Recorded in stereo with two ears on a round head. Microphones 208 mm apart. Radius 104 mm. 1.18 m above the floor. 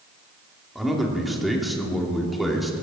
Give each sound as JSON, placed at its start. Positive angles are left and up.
{"t": 0.8, "sound": "a man speaking", "side_deg": 0, "distance_m": 2.5}